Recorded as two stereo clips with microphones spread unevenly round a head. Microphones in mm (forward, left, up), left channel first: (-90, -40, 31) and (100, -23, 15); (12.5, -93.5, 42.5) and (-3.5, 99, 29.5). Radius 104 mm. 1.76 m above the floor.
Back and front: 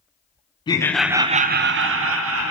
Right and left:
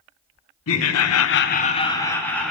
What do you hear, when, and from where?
0.7 s laughter: 105° right, 0.7 m; by 2.5 s straight ahead, 1.1 m